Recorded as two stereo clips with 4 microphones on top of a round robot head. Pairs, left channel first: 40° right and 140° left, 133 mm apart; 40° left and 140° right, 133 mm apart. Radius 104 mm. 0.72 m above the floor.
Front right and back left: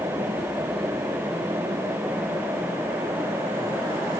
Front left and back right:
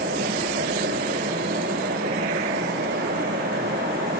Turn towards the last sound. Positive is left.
No sound to turn to.